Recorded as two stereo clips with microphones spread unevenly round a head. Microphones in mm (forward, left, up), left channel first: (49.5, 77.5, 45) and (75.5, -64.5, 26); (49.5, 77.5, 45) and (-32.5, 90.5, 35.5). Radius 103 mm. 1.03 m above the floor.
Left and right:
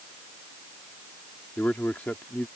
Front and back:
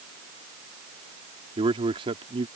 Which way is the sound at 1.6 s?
175° right.